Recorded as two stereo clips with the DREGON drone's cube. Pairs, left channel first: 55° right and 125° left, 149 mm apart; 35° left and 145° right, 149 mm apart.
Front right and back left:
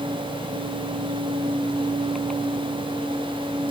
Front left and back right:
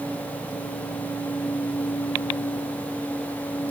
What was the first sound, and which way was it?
Only background noise.